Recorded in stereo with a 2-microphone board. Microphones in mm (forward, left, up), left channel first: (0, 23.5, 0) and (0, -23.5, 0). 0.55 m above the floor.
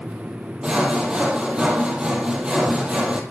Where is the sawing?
25° right (ahead or behind), 3.5 m.